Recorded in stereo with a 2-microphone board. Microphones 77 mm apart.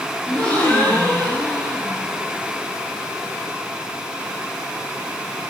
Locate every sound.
0.3 s a gasp: 20° left (ahead or behind), 3 m